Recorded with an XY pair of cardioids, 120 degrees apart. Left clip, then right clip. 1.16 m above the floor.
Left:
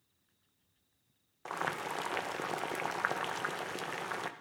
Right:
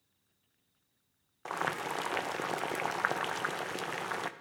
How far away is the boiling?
About 0.5 m.